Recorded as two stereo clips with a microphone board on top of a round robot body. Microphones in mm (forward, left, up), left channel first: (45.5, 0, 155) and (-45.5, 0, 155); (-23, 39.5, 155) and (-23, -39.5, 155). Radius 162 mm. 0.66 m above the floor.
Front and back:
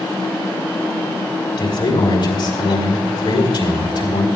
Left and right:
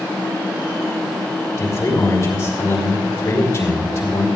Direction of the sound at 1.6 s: 30° left.